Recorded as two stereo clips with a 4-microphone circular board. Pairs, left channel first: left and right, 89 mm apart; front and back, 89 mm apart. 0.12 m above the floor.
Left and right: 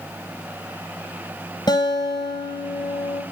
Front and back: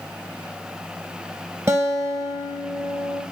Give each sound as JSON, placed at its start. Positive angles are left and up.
{"t": 1.7, "sound": "a guitar", "azimuth_deg": 125, "distance_m": 2.0}